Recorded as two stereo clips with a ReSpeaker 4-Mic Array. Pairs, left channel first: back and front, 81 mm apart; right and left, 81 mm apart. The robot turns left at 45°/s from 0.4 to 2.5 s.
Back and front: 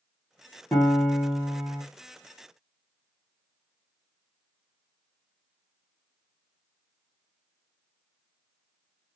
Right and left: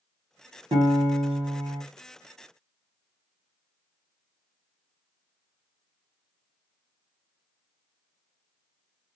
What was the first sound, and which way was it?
A piano, 105° left.